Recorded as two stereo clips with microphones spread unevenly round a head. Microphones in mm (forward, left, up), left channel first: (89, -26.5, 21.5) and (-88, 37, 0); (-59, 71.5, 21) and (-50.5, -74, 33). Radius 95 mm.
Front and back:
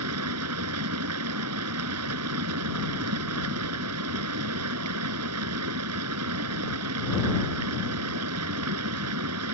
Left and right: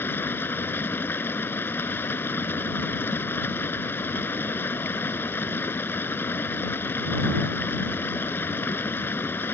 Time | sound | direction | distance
0.0 | running water | 170° left | ?